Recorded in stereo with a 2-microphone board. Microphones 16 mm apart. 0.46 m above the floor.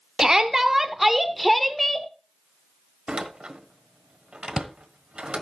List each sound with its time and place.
0.2 s a shout: 35° right (ahead or behind), 1.4 m; by 2.1 s 15° left (ahead or behind), 1.6 m
3.1 s a door slam: 70° right (ahead or behind), 1.3 m